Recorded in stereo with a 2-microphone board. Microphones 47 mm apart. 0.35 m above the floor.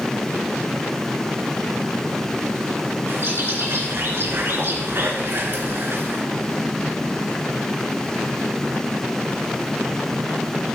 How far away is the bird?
About 2.5 m.